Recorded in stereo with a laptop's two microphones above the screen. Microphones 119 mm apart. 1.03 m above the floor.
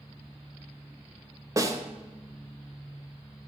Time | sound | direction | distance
1.6 | a snare drum | 25° right (ahead or behind) | 0.6 m